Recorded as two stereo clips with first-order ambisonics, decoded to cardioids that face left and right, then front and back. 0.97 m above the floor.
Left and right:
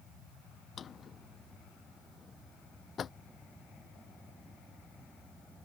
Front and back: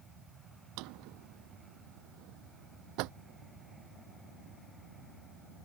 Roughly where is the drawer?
Behind left.